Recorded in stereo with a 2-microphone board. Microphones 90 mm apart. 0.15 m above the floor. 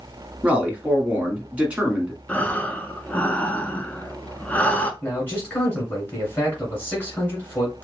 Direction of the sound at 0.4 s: 15° right (ahead or behind).